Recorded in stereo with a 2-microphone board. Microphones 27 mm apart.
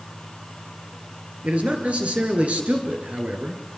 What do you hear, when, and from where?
1.4 s a man speaking: 60° right (ahead or behind), 7 m; by 3.6 s 50° right (ahead or behind), 6 m